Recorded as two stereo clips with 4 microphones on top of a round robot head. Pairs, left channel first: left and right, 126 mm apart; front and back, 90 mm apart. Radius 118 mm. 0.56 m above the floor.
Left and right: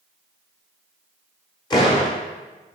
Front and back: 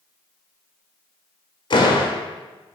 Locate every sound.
1.7 s a door slam: 35° left, 1.5 m